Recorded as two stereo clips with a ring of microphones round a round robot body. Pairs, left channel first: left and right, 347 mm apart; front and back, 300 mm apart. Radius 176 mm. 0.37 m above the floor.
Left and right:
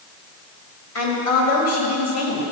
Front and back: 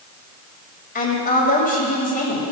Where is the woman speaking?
55° left, 2.5 m.